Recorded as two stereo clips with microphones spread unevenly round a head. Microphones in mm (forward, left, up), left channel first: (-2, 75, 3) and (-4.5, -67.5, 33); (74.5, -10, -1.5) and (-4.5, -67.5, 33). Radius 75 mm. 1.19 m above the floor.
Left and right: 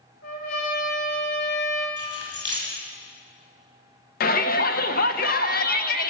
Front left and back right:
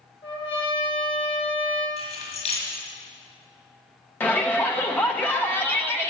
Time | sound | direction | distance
0.2 | a trumpet | 70° left | 2 m
2.0 | keys jangling | 25° left | 5.5 m
4.2 | a shout | 110° left | 0.7 m